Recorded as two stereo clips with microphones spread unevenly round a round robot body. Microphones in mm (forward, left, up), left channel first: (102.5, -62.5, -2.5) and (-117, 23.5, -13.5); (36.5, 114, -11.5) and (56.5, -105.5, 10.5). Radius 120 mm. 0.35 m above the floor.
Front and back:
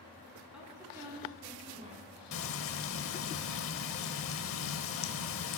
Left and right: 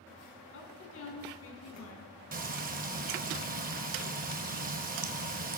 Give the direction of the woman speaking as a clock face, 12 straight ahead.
10 o'clock.